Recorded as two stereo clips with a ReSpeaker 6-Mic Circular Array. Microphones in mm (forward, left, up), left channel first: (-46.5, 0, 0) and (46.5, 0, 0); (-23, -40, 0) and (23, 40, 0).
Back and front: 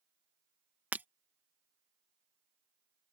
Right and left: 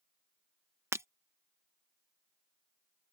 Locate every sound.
0.9 s breaking glass: 50° left